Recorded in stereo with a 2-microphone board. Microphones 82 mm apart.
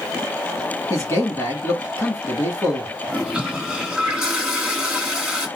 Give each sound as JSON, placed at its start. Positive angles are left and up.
{"t": 0.9, "sound": "a man speaking", "side_deg": 35, "distance_m": 1.7}
{"t": 3.1, "sound": "a toilet flushing", "side_deg": -5, "distance_m": 2.5}